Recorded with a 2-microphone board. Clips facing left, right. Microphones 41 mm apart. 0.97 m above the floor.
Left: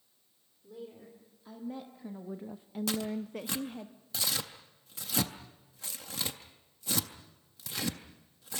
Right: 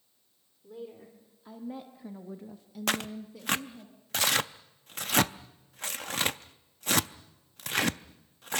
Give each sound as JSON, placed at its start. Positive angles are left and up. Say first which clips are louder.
{"t": 0.6, "sound": "a woman speaking", "louder": "right 3 dB", "side_deg": -20, "distance_m": 3.0}
{"t": 2.9, "sound": "tearing paper", "louder": "right 3 dB", "side_deg": -55, "distance_m": 0.6}